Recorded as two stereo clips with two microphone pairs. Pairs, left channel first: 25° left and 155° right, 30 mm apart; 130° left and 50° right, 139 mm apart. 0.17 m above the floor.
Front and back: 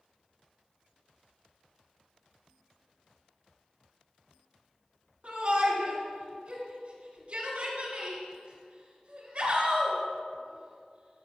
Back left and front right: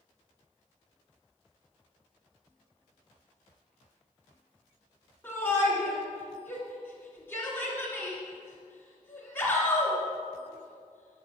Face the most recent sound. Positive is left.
turn(degrees=-165)